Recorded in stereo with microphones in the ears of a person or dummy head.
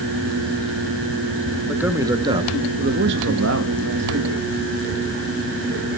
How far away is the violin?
I don't hear a violin.